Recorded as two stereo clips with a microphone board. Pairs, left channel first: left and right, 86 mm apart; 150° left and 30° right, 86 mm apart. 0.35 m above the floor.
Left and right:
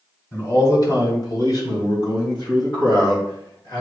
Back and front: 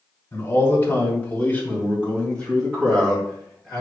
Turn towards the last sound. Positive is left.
turn(degrees=60)